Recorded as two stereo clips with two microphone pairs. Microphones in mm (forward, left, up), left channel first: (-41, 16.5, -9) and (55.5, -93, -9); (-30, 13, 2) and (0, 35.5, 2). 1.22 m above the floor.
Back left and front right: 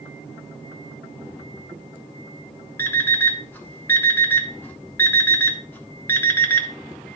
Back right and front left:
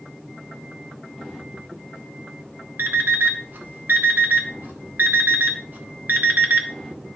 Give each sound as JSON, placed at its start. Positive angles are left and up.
{"t": 2.8, "sound": "an alarm clock", "azimuth_deg": 55, "distance_m": 1.3}